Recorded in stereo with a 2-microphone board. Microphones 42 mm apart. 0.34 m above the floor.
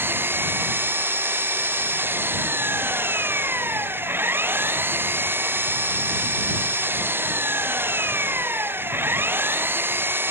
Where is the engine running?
60° right (ahead or behind).